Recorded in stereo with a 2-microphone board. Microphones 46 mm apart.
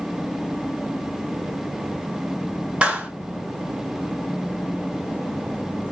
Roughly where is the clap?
Right.